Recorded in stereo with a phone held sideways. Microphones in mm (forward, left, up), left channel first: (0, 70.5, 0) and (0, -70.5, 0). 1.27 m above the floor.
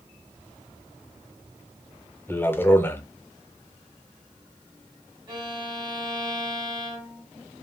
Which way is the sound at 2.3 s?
15° left (ahead or behind).